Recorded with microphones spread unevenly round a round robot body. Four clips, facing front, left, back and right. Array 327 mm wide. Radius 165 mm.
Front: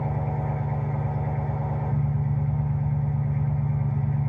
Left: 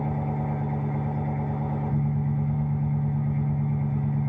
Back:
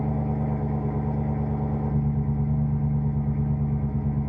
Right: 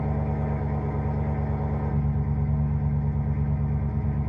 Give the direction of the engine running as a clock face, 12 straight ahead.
5 o'clock.